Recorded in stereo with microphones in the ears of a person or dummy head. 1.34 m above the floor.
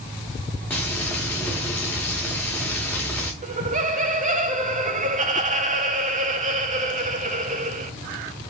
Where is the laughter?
30° right (ahead or behind), 0.6 m.